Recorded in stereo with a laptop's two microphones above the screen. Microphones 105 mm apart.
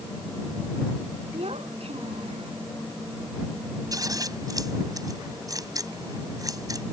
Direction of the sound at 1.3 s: 75° right (ahead or behind).